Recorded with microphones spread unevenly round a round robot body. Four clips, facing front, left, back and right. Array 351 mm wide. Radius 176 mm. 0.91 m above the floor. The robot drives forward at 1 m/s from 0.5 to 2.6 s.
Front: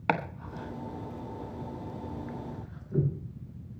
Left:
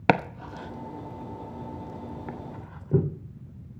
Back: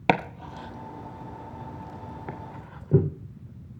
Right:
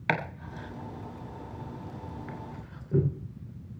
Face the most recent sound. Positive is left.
turn(degrees=165)